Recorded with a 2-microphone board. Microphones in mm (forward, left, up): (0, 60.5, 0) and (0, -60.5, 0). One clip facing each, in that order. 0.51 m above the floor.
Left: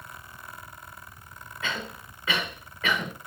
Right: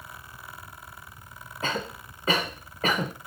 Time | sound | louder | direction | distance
1.6 | a cough | right 3 dB | 40° right (ahead or behind) | 1.4 m